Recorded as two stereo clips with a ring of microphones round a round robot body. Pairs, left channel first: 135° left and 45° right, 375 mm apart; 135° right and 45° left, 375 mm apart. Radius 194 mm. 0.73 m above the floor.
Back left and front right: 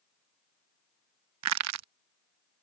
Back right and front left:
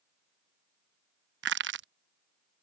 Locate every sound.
1.4 s crushing: 10° right